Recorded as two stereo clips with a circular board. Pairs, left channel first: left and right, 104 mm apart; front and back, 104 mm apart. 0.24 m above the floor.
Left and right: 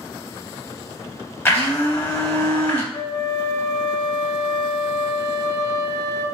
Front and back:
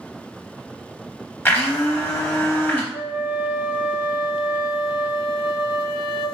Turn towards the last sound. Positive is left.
turn(degrees=130)